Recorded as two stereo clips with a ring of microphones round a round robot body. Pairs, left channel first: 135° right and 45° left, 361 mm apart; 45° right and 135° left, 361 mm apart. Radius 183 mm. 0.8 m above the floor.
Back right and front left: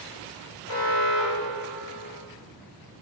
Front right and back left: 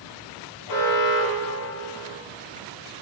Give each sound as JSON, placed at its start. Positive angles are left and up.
{"t": 0.7, "sound": "an alarm", "azimuth_deg": -80, "distance_m": 6.0}